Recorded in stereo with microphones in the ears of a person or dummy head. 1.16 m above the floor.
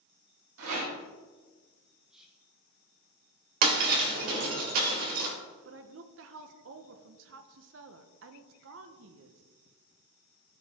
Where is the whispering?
5° right (ahead or behind), 0.5 m.